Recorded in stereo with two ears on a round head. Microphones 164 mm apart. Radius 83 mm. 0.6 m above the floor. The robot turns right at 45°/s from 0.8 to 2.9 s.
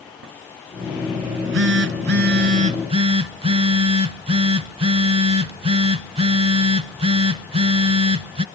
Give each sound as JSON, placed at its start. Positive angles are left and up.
{"t": 1.2, "sound": "a phone buzzing", "azimuth_deg": -105, "distance_m": 0.7}